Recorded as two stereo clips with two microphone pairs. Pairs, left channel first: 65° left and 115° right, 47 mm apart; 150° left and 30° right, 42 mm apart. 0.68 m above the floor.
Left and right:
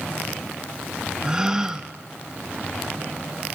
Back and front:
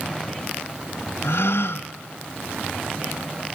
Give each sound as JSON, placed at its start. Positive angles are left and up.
{"t": 1.2, "sound": "a gasp", "azimuth_deg": 170, "distance_m": 1.2}